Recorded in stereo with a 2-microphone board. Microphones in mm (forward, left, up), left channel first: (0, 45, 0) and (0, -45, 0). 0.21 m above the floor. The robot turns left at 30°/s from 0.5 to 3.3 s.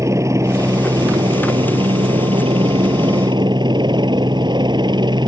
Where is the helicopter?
40° right; by 5.3 s 120° right.